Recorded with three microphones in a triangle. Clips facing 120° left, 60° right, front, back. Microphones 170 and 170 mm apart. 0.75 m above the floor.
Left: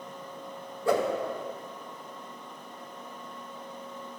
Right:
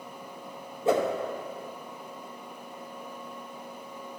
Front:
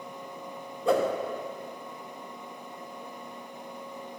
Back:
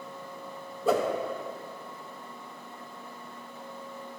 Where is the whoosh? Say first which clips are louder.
Right 1 dB, front 1 dB; 95° right, 0.9 m.